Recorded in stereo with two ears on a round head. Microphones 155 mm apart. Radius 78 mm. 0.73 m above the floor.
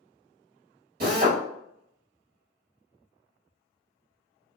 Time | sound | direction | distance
1.0 | a drill | 55° right (ahead or behind) | 1.5 m